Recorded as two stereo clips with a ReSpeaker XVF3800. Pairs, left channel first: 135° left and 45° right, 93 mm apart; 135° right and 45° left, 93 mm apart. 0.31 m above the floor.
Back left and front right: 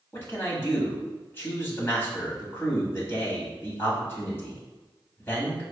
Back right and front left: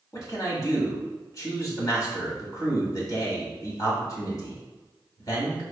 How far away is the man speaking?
About 1.7 m.